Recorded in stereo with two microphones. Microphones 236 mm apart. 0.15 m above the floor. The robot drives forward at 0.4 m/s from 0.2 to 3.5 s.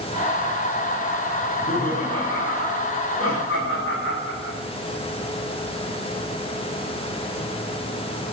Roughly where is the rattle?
I don't hear a rattle.